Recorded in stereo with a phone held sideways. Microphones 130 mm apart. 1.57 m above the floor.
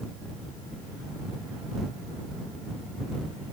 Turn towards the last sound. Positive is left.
No sound to turn to.